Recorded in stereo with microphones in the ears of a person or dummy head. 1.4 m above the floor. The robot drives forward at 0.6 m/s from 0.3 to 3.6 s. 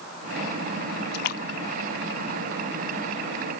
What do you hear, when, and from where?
1.1 s a splash: 50° left (ahead or behind); by 3.2 s 30° left (ahead or behind)